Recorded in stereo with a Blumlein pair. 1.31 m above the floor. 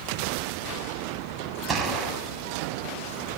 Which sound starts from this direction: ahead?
A gunshot, at 1.7 s.